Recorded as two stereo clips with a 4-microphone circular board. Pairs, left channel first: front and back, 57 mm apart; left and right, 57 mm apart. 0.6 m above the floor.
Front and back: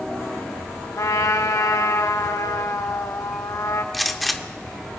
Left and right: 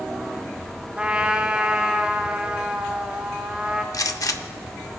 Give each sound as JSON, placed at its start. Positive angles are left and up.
{"t": 1.0, "sound": "a trumpet", "azimuth_deg": -20, "distance_m": 0.7}
{"t": 3.9, "sound": "a gunshot", "azimuth_deg": 90, "distance_m": 0.6}